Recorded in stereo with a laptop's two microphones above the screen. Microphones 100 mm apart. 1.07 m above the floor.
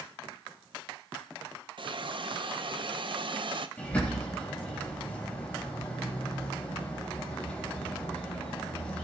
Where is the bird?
15° left (ahead or behind), 5 m.